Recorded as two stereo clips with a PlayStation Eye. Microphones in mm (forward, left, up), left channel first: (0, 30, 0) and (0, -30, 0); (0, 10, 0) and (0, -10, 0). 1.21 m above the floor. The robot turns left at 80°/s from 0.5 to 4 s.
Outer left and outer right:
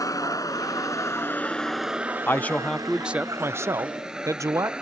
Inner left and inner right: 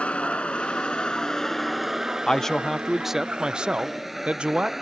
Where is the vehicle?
90° left; by 4.8 s 15° right (ahead or behind).